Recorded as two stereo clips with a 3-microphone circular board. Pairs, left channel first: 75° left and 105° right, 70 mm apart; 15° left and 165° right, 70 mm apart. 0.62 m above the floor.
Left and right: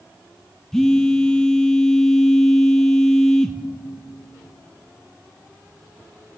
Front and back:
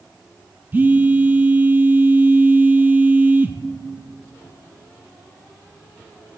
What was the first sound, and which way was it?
A phone buzzing, 150° left.